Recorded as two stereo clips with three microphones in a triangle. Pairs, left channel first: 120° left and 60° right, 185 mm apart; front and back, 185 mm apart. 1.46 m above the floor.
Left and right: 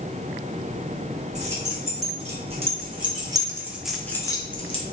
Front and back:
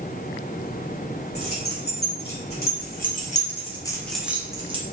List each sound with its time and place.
1.4 s keys jangling: 10° right, 1.9 m; by 4.8 s 150° left, 0.7 m